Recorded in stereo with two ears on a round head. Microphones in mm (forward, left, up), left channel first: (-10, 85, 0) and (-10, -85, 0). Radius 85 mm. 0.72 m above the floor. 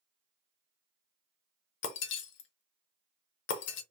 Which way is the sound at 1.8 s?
65° left (ahead or behind).